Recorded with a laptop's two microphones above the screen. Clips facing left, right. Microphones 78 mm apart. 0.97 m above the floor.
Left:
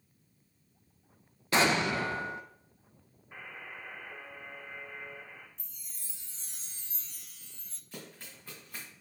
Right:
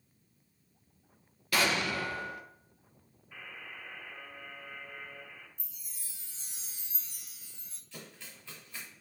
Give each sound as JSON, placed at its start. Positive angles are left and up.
{"t": 1.5, "sound": "an explosion", "side_deg": 25, "distance_m": 0.6}
{"t": 3.3, "sound": "a buzzer", "side_deg": 30, "distance_m": 1.9}
{"t": 5.6, "sound": "a chime", "side_deg": -5, "distance_m": 0.8}
{"t": 7.9, "sound": "running footsteps", "side_deg": 40, "distance_m": 3.5}